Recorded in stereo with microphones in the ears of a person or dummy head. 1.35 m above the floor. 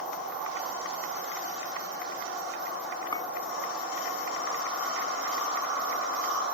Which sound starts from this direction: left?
A clink, at 3.1 s.